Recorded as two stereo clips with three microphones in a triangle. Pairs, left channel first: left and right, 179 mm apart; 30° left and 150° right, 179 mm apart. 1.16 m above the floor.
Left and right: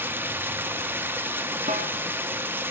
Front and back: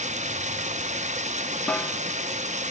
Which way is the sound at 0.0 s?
165° right.